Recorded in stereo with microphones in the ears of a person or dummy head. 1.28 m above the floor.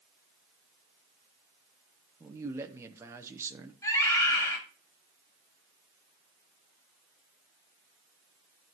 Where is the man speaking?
15° right (ahead or behind), 0.8 m.